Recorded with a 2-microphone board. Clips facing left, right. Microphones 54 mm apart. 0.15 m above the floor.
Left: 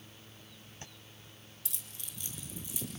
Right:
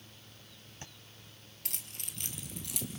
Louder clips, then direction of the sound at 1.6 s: Right 4 dB; 60° right (ahead or behind).